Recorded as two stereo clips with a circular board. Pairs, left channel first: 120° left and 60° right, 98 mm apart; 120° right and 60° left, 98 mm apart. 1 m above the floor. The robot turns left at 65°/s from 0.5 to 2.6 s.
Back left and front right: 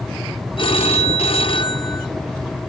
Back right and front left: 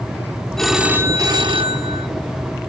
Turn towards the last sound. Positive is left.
turn(degrees=20)